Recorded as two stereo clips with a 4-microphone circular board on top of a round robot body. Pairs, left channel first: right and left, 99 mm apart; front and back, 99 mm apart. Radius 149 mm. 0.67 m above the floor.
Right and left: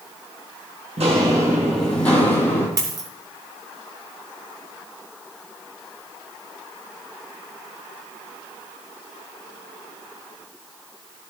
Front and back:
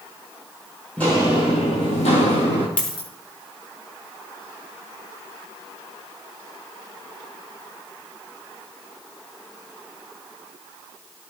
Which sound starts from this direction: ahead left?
A dropped coin, at 2.8 s.